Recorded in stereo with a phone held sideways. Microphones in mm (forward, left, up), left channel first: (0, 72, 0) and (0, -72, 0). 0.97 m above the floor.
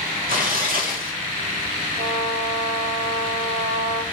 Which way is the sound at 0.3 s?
80° right.